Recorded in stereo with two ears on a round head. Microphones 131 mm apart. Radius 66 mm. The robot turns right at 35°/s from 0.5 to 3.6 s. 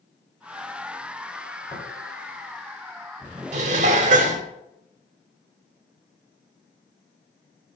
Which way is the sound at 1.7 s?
10° left (ahead or behind).